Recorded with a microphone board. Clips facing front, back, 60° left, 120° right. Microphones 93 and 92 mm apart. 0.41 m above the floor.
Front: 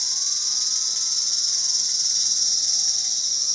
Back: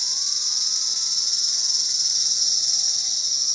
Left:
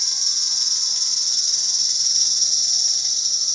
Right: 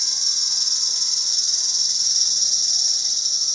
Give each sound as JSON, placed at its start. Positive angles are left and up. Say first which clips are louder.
{"t": 0.0, "sound": "an insect", "louder": "even, even", "azimuth_deg": -110, "distance_m": 1.1}